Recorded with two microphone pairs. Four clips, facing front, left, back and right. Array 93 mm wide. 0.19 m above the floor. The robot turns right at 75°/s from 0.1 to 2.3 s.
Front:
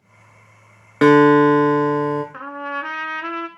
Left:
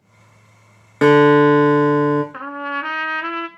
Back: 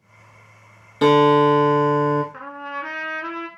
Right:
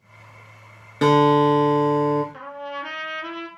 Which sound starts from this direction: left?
A trumpet, at 2.3 s.